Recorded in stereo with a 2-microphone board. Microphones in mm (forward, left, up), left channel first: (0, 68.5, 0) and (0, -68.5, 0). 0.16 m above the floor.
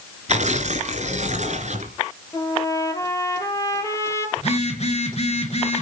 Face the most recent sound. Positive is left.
turn(degrees=50)  # may be behind; listen again after turning